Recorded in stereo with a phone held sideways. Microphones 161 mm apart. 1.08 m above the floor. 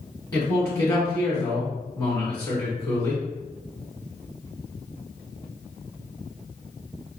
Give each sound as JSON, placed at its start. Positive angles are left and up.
{"t": 0.3, "sound": "a man speaking", "side_deg": 20, "distance_m": 1.5}